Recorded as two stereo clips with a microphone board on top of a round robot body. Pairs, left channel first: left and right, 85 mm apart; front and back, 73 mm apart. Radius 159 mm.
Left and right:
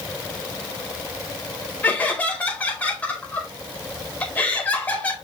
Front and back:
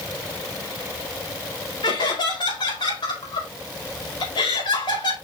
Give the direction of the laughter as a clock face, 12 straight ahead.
11 o'clock.